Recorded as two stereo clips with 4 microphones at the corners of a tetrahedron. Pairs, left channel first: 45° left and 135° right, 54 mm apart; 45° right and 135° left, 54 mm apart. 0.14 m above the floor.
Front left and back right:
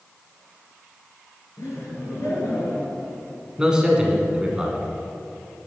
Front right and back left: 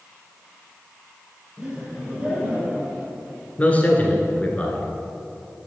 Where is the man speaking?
75° right, 1.4 m.